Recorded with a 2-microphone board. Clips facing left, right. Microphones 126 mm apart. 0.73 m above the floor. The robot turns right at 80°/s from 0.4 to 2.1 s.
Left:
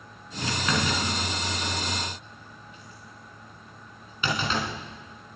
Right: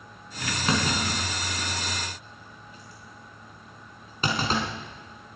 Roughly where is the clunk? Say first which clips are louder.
Right 2 dB; right.